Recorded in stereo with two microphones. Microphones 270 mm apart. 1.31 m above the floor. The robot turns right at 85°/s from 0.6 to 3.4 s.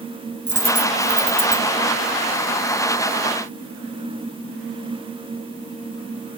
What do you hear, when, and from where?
0.5 s a dropped coin: 40° right (ahead or behind), 3.5 m; by 1.6 s 40° left (ahead or behind), 3.5 m